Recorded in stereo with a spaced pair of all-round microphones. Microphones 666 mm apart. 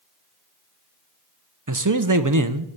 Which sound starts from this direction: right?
A man speaking, at 1.7 s.